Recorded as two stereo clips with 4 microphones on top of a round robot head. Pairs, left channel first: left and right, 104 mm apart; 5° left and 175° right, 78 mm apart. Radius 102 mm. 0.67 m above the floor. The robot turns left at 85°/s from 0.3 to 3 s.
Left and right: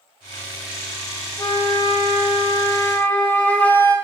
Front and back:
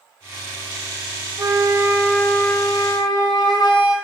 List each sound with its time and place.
1.4 s a flute: 150° left, 0.7 m; by 4.0 s 15° left, 0.7 m